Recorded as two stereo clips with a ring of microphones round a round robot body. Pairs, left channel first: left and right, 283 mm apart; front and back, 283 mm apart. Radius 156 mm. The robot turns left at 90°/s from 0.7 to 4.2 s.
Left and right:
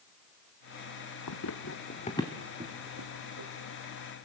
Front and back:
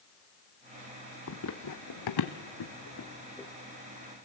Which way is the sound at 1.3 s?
50° left.